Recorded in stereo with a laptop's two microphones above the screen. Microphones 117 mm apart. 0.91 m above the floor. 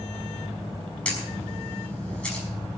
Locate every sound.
1.1 s a camera shutter: 10° left (ahead or behind), 5.5 m